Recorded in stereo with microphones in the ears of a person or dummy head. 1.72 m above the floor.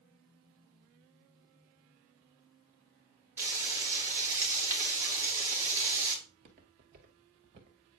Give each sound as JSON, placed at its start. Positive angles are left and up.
{"t": 3.4, "sound": "frying", "side_deg": -10, "distance_m": 3.5}
{"t": 6.2, "sound": "footsteps", "side_deg": -35, "distance_m": 2.0}